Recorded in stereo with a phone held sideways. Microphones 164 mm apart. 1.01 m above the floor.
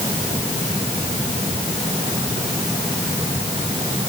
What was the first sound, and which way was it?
Only background noise.